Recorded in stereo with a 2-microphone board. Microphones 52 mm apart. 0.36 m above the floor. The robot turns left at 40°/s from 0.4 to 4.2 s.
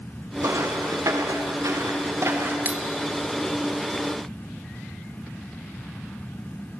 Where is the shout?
No shout in this recording.